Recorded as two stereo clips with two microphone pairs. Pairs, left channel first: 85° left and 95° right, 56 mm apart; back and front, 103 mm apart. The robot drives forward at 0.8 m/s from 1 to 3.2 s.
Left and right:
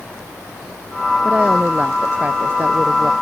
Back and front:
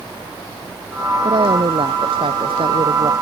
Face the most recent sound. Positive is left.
turn(degrees=-35)